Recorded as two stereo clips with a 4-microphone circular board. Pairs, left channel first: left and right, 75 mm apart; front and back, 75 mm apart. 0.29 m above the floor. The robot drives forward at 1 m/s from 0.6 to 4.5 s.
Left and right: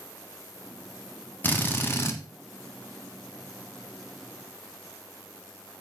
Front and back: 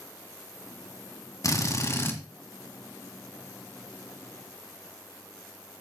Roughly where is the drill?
Ahead left.